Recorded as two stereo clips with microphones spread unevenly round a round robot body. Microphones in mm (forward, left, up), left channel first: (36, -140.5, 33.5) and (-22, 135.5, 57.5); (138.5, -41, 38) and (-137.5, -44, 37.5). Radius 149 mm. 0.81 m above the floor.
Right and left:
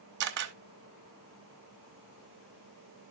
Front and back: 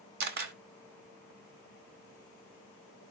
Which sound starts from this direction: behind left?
A camera shutter, at 0.2 s.